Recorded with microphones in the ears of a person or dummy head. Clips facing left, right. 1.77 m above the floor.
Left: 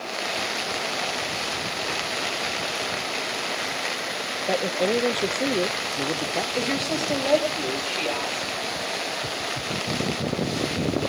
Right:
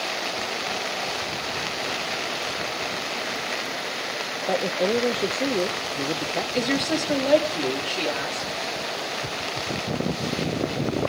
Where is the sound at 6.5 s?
20° right (ahead or behind), 4 m.